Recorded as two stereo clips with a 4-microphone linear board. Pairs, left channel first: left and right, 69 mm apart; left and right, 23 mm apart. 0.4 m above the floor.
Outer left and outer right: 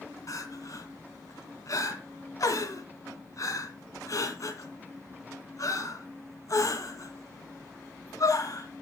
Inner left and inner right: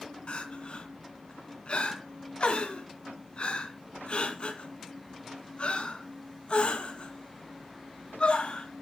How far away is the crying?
About 2 m.